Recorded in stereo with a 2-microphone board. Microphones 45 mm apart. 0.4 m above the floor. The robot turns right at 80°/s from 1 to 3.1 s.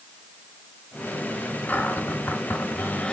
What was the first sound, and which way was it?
A cupboard door, 40° left.